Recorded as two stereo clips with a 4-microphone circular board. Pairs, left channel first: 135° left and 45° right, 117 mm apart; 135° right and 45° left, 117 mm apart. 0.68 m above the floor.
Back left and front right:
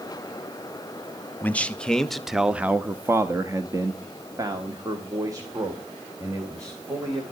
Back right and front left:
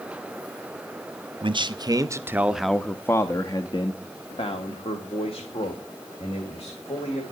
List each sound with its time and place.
1.4 s a man speaking: 60° left, 0.9 m; by 7.2 s 105° right, 3 m